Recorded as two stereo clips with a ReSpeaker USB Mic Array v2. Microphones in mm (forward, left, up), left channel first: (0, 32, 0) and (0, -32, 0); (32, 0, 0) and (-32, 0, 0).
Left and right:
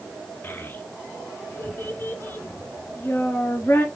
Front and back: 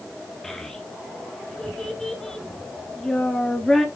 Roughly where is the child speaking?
Left.